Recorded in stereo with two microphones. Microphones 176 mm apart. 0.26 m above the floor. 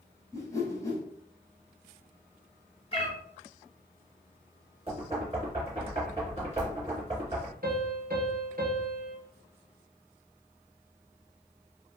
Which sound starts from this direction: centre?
A whoosh, at 0.3 s.